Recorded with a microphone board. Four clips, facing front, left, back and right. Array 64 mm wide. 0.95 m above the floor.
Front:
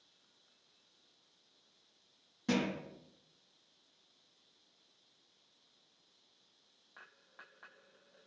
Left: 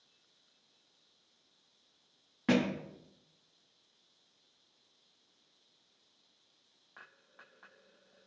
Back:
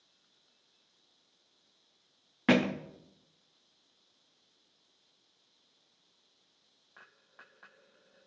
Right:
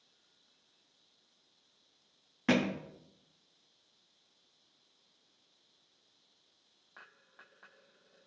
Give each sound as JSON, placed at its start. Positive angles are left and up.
{"t": 2.5, "sound": "a thud", "azimuth_deg": -170, "distance_m": 0.6}